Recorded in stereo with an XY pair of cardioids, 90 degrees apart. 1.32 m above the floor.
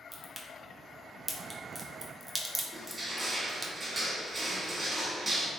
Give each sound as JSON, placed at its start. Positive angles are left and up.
{"t": 0.1, "sound": "a crack", "azimuth_deg": -20, "distance_m": 0.7}
{"t": 2.7, "sound": "crushing", "azimuth_deg": -30, "distance_m": 1.5}